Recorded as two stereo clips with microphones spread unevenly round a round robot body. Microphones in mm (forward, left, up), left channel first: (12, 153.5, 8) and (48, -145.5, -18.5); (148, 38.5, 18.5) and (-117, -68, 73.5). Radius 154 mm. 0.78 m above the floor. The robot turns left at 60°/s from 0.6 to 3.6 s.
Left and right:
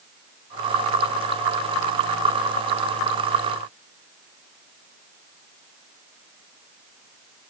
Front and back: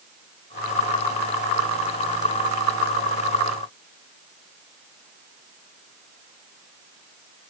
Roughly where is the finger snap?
No finger snap in this recording.